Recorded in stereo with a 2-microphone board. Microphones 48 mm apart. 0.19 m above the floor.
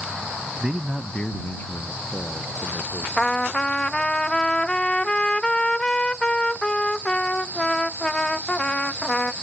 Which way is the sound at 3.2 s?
15° left (ahead or behind).